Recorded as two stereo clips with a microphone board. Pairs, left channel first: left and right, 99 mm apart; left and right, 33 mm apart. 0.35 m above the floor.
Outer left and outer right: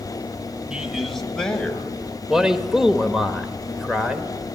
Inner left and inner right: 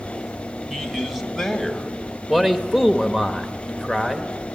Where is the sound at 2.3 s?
5° right (ahead or behind), 1.1 m.